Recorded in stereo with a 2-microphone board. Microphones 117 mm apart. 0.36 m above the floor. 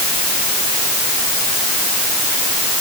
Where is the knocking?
No knocking in this recording.